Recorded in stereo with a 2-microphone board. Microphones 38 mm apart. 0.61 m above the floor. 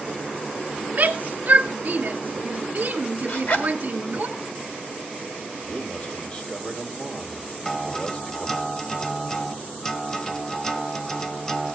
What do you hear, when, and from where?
0.9 s a shout: 45° right (ahead or behind), 1.6 m
3.3 s a zipper: 55° left (ahead or behind), 2.5 m
5.6 s a man speaking: 25° left (ahead or behind), 2.5 m
7.7 s a guitar: 10° left (ahead or behind), 0.8 m